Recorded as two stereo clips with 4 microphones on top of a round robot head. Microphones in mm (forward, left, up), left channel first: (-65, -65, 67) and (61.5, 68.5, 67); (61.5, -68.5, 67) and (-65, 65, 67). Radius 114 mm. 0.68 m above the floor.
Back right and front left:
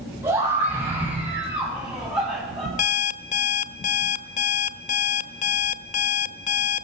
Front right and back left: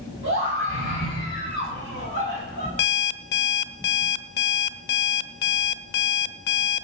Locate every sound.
0.2 s a scream: 120° left, 7.5 m; by 2.7 s 135° left, 7.5 m
2.8 s an alarm clock: 80° right, 0.7 m